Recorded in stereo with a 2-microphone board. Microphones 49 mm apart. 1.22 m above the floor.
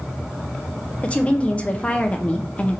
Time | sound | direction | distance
1.0 | a woman speaking | 25° left (ahead or behind) | 0.5 m